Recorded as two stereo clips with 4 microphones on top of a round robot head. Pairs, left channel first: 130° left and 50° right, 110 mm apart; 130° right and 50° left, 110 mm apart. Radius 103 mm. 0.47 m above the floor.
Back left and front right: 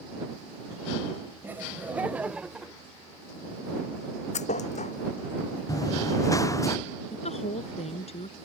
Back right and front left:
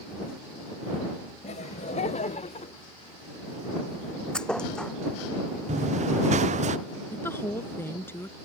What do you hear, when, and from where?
1.4 s laughter: 125° right; by 2.7 s 135° right
4.3 s a thud: 145° left
5.7 s running footsteps: 70° left; by 6.8 s 65° left
7.1 s a woman speaking: 160° left